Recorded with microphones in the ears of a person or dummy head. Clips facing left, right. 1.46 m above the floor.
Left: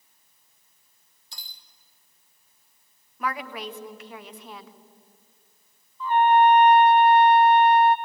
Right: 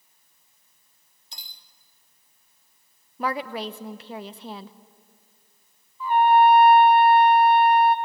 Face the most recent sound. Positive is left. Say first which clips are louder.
# right 1 dB
turn(degrees=-15)  # may be behind; listen again after turning